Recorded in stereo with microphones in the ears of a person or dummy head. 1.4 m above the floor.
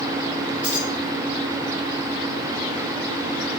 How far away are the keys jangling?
About 1.4 m.